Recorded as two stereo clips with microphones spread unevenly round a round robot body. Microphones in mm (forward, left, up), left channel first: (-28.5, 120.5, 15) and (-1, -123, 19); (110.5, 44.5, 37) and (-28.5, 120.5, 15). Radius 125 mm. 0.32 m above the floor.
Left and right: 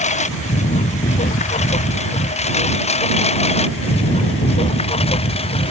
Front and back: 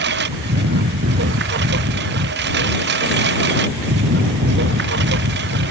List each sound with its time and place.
0.0 s a lawn mower: 160° left; by 5.7 s 165° left